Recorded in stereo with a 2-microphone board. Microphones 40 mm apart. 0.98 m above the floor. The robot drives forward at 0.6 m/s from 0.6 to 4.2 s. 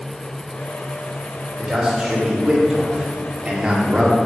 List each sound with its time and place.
1.6 s a man speaking: 20° right (ahead or behind), 3.5 m; by 4.2 s 35° right (ahead or behind), 2 m